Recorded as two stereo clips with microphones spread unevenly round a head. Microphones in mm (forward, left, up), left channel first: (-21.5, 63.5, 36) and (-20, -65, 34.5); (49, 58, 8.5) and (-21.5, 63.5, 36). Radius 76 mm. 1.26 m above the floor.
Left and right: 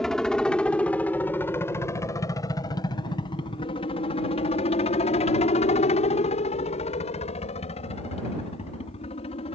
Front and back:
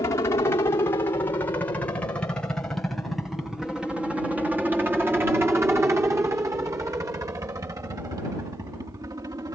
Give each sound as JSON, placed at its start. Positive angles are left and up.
{"t": 0.0, "sound": "a helicopter", "azimuth_deg": 5}